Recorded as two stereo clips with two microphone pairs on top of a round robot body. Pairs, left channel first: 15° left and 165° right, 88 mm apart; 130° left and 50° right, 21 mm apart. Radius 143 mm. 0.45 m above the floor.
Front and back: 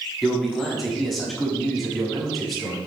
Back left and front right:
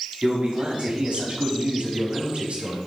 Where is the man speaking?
75° right, 6 m.